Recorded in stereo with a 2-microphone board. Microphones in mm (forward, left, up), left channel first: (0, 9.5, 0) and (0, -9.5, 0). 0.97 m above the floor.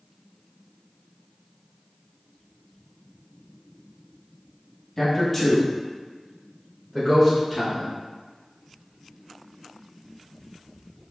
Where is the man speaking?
15° left (ahead or behind), 1.8 m; by 7.9 s 15° right (ahead or behind), 3 m.